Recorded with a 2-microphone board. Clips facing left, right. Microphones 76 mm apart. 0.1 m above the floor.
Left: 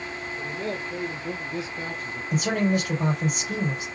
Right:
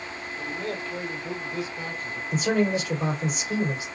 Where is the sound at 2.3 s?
45° left (ahead or behind), 2.5 m.